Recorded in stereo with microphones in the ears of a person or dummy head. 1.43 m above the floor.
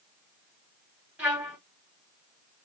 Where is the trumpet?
10° right (ahead or behind), 2.5 m.